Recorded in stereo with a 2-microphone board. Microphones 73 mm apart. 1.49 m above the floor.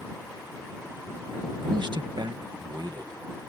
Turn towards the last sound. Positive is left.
turn(degrees=-70)  # may be behind; listen again after turning